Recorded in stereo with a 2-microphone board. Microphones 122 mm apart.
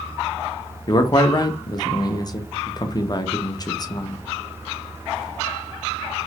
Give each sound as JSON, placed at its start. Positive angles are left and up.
{"t": 0.9, "sound": "a man speaking", "side_deg": 35, "distance_m": 0.5}